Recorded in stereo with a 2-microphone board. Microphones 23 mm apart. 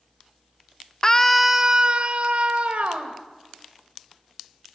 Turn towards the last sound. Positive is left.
turn(degrees=-75)  # may be behind; listen again after turning